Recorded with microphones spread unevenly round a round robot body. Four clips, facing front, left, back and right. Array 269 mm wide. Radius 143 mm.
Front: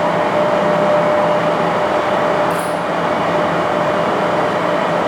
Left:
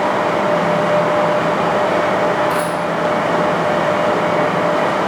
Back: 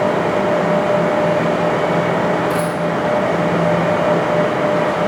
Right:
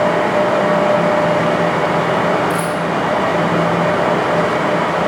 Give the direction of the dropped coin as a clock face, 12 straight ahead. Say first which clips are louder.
Even, front 1 dB; 5 o'clock.